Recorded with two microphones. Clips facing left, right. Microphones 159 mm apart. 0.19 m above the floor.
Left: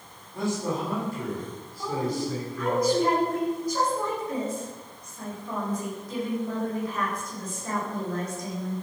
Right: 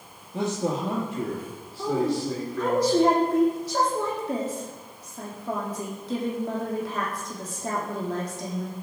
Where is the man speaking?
75° right (ahead or behind), 6 m.